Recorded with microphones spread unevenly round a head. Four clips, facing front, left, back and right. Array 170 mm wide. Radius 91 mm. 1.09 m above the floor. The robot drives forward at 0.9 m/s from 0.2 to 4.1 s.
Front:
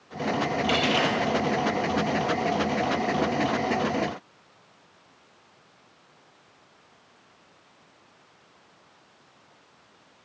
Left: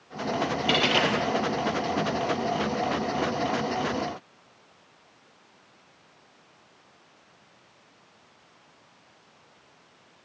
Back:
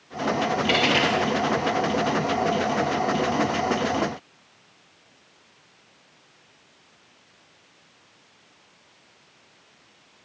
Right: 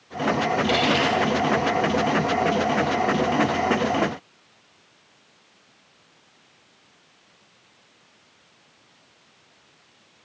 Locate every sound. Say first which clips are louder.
0.7 s a dropped coin: even, back 2 dB; 125° left, 1.6 m; by 1.1 s 135° left, 1.8 m